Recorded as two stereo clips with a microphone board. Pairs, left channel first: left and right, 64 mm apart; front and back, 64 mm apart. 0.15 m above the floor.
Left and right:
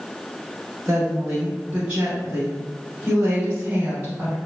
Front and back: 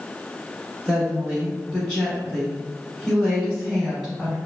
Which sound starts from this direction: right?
A woman speaking, at 0.8 s.